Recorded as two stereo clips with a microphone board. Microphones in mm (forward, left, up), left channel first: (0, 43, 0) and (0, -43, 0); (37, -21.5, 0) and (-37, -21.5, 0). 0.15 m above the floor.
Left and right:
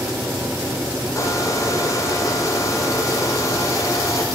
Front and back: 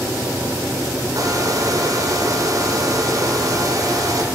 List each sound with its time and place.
1.1 s a hair dryer: 140° left, 2 m